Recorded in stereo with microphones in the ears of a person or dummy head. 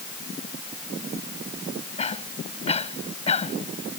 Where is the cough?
35° left (ahead or behind).